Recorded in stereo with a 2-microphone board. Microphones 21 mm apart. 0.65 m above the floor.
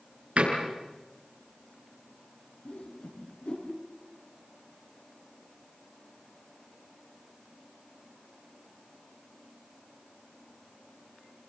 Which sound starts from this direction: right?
A door slam, at 0.4 s.